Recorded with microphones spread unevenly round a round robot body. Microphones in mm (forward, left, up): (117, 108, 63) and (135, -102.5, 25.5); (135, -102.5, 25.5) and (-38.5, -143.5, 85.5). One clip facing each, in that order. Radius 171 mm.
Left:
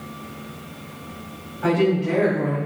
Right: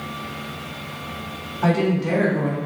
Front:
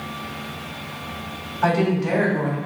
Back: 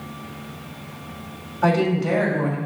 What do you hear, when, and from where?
1.6 s a woman speaking: 105° right, 3 m